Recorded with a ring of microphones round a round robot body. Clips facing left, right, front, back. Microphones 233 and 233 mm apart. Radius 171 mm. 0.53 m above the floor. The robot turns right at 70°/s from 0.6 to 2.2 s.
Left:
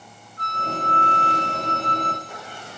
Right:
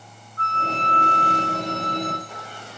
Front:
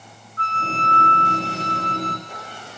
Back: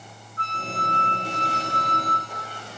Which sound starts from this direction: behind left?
A flute, at 0.4 s.